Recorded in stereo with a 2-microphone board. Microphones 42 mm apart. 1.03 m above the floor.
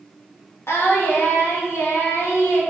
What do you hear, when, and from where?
0.7 s singing: 85° left, 0.9 m